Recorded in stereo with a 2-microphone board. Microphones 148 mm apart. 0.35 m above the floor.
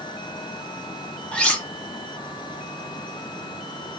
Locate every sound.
1.3 s cutlery clinking: 5° left (ahead or behind), 1.2 m